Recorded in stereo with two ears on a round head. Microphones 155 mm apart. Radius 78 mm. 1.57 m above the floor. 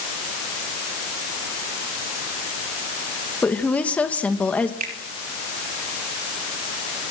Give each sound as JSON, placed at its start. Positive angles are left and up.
{"t": 3.4, "sound": "a woman speaking", "side_deg": 10, "distance_m": 2.5}
{"t": 4.8, "sound": "a finger snap", "side_deg": -50, "distance_m": 4.0}